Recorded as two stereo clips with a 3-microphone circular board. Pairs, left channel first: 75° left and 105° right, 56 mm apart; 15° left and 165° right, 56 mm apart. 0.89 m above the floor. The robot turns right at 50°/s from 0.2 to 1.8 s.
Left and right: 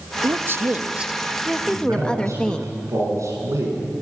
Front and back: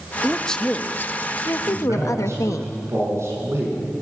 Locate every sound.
0.2 s a woman speaking: 75° right, 0.8 m; by 2.7 s straight ahead, 0.8 m
1.7 s a man speaking: 135° right, 7.5 m; by 3.8 s 130° right, 7.5 m